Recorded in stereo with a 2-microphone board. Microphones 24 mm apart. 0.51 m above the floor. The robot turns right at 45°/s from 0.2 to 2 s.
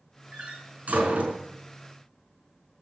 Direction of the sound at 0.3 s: 60° right (ahead or behind).